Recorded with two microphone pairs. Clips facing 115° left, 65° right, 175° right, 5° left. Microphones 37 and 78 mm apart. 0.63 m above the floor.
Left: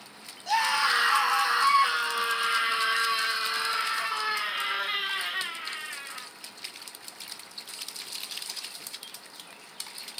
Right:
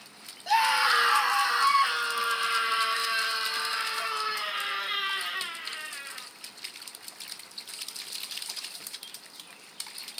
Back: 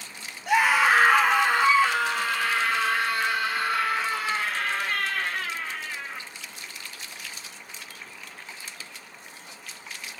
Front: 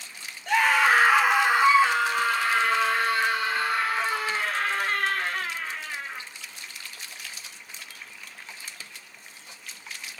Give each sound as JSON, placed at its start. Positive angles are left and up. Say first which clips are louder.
{"t": 0.5, "sound": "a scream", "louder": "right 2 dB, even", "azimuth_deg": -120, "distance_m": 0.9}